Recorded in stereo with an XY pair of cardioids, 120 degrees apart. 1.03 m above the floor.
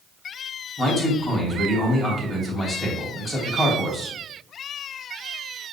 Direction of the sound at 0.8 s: 10° right.